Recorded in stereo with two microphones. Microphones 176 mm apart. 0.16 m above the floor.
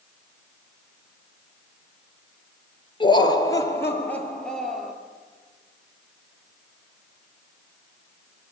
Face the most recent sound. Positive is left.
turn(degrees=0)  # may be behind; listen again after turning